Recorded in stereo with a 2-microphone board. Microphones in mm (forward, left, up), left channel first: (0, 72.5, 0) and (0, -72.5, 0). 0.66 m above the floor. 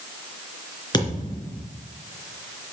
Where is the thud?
30° left (ahead or behind), 3.5 m.